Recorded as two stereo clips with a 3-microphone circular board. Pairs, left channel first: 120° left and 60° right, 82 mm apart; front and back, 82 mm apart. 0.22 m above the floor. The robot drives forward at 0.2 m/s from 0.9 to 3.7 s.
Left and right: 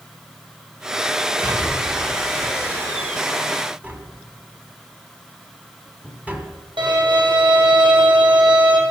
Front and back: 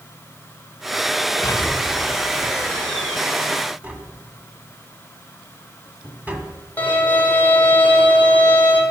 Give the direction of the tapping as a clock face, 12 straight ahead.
4 o'clock.